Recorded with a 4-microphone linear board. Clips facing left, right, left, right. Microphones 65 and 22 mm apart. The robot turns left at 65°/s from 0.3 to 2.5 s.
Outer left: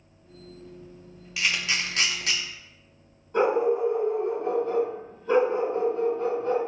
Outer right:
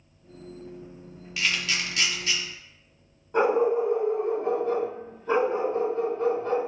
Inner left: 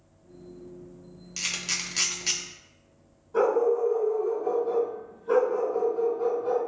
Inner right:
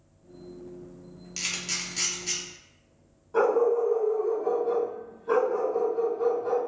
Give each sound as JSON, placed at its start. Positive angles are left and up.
{"t": 1.4, "sound": "a camera shutter", "side_deg": 0, "distance_m": 0.6}
{"t": 3.3, "sound": "a dog barking", "side_deg": -30, "distance_m": 1.5}